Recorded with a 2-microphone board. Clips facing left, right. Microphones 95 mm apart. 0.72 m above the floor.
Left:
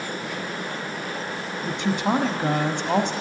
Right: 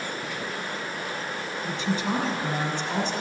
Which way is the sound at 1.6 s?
60° left (ahead or behind).